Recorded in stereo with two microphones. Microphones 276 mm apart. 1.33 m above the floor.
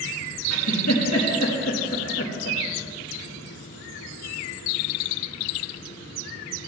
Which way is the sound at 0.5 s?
65° left (ahead or behind).